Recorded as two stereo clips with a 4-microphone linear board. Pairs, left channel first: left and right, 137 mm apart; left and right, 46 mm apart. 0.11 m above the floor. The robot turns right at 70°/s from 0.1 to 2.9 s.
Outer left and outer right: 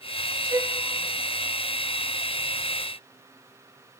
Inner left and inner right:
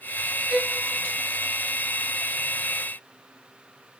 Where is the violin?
25° right (ahead or behind), 0.8 m; by 0.8 s 35° right (ahead or behind), 0.8 m.